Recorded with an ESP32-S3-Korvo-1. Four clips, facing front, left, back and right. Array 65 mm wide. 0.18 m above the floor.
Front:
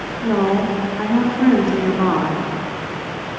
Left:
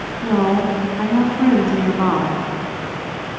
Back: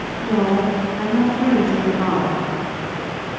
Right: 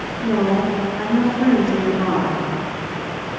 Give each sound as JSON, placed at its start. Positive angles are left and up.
{"t": 0.2, "sound": "a woman speaking", "azimuth_deg": 60, "distance_m": 1.8}